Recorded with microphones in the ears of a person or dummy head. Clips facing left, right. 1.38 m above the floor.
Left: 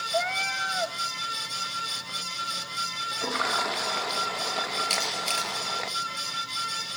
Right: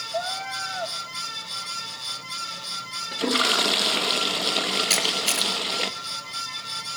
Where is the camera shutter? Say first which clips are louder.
Right 4 dB; 20° right (ahead or behind), 5.5 m.